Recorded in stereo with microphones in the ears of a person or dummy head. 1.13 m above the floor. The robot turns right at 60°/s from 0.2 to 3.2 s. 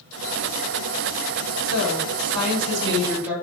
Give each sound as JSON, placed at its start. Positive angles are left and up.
{"t": 1.6, "sound": "a woman speaking", "azimuth_deg": -100, "distance_m": 2.5}